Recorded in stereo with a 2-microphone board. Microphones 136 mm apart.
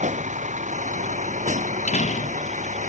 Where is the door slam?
60° left (ahead or behind).